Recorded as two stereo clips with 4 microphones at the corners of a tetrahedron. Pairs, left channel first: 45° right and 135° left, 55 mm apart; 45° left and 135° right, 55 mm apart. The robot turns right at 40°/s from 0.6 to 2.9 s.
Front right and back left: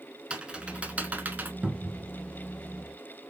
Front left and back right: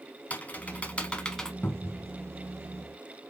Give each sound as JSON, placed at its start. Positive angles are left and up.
{"t": 0.3, "sound": "typing on a keyboard", "azimuth_deg": 80, "distance_m": 0.8}
{"t": 1.6, "sound": "a cupboard door", "azimuth_deg": 85, "distance_m": 0.9}